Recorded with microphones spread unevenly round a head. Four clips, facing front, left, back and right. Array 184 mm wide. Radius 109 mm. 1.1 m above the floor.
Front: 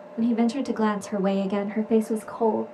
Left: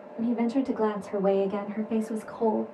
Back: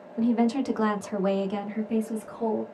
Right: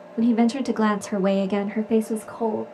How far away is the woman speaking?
About 1.6 m.